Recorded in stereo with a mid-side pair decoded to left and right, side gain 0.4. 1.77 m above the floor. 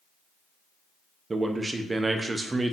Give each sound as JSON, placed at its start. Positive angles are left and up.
{"t": 1.3, "sound": "a man speaking", "azimuth_deg": -30, "distance_m": 0.5}